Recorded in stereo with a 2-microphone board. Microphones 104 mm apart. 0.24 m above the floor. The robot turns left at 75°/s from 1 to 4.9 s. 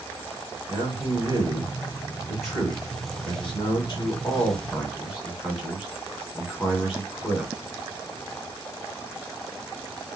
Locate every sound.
0.7 s a man speaking: 50° right (ahead or behind), 2 m; by 7.5 s 5° right (ahead or behind), 2 m